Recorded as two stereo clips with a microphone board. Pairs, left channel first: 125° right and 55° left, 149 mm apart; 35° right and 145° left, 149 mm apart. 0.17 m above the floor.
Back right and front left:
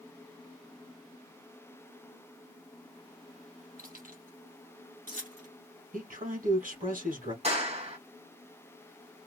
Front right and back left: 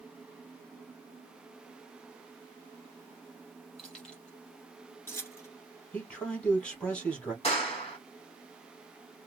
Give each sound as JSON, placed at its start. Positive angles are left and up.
{"t": 3.8, "sound": "keys jangling", "azimuth_deg": 55, "distance_m": 3.0}
{"t": 5.9, "sound": "a man speaking", "azimuth_deg": 50, "distance_m": 3.0}
{"t": 7.4, "sound": "a clap", "azimuth_deg": 15, "distance_m": 3.0}